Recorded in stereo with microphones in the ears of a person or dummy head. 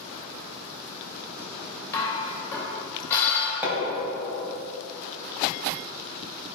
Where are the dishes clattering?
20° left (ahead or behind), 3 m.